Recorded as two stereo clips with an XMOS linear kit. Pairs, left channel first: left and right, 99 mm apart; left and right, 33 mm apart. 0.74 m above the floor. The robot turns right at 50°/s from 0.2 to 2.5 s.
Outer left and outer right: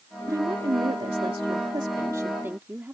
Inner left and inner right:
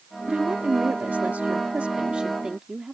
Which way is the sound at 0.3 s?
135° right.